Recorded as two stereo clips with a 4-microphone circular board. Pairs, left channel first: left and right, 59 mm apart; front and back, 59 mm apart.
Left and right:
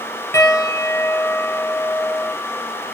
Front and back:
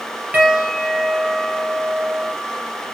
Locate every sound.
0.3 s a piano: 120° left, 4 m